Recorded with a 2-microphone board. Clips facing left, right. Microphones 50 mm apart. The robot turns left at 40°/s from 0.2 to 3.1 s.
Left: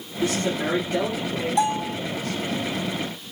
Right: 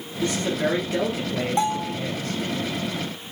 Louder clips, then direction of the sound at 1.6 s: Left 2 dB; 35° right (ahead or behind).